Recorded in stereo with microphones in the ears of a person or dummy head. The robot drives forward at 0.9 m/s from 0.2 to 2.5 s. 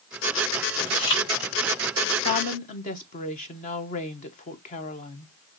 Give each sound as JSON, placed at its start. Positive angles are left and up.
{"t": 0.9, "sound": "chewing", "side_deg": 20, "distance_m": 1.7}
{"t": 2.2, "sound": "a woman speaking", "side_deg": 45, "distance_m": 0.8}